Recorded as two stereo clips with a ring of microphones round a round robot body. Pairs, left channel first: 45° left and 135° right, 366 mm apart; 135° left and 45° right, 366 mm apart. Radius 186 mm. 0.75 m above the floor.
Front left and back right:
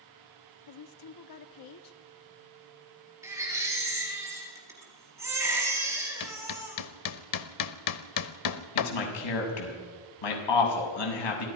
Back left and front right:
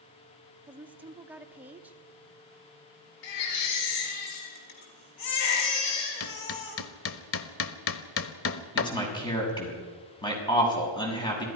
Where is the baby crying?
145° left, 5.5 m.